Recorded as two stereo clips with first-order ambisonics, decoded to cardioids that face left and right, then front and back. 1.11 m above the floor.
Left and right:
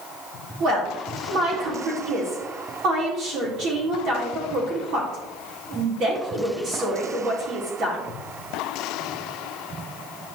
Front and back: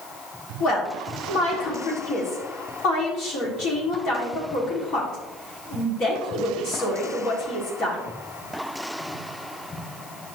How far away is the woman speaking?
About 3 m.